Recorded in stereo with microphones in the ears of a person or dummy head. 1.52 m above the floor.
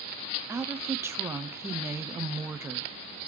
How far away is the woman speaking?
About 0.6 m.